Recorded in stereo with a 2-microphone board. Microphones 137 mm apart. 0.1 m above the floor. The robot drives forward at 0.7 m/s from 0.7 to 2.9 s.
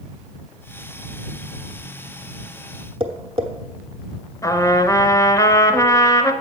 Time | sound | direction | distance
3.0 | tapping | 40° right (ahead or behind) | 1.0 m
4.4 | a trumpet | 25° left (ahead or behind) | 0.7 m